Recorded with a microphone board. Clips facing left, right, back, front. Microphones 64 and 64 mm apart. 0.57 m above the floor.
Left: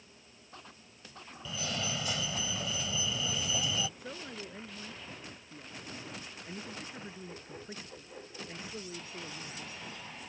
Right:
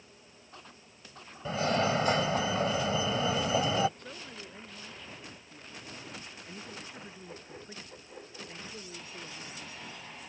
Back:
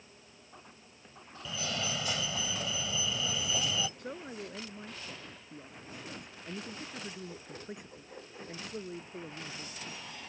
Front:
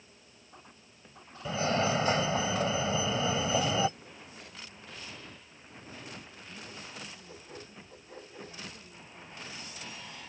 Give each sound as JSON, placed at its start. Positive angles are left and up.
{"t": 1.4, "sound": "a fire alarm", "azimuth_deg": -50}
{"t": 4.0, "sound": "a man speaking", "azimuth_deg": 170}